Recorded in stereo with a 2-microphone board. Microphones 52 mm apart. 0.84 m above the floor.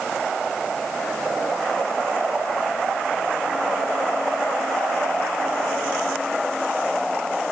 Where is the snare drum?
No snare drum in this recording.